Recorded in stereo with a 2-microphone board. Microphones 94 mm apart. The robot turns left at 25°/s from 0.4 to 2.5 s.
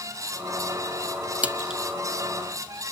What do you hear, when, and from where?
1.4 s a splash: 15° right (ahead or behind); by 1.8 s 5° right (ahead or behind)